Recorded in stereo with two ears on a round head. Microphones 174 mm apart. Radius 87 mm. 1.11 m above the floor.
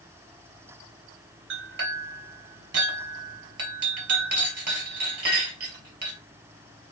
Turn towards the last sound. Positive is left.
turn(degrees=-60)  # may be behind; listen again after turning